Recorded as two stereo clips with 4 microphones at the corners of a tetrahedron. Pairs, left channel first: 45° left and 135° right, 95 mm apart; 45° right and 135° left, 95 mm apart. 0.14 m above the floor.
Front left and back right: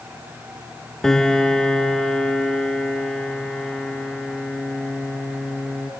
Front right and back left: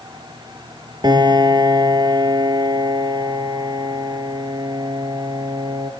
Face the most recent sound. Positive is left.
turn(degrees=130)